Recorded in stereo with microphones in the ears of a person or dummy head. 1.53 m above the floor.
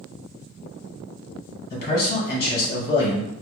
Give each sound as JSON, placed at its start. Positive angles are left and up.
{"t": 1.7, "sound": "a man speaking", "side_deg": 55, "distance_m": 1.6}